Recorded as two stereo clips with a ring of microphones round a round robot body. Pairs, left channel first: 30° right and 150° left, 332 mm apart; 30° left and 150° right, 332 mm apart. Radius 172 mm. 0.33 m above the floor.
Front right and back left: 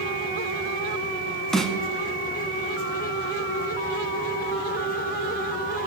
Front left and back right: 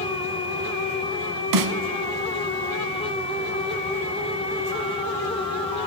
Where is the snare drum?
120° right, 1.0 m.